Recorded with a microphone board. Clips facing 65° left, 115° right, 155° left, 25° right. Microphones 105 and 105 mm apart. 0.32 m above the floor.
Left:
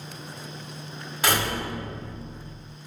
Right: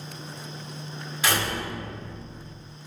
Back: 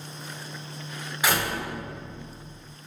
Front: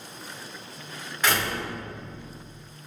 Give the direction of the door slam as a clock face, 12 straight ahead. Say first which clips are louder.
Left 1 dB, even; 9 o'clock.